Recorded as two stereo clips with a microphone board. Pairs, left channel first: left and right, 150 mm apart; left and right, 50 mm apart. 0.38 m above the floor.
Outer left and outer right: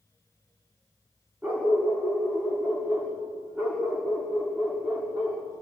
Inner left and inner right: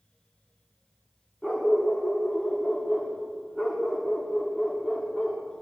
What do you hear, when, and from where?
1.4 s a dog barking: 10° right (ahead or behind), 8.5 m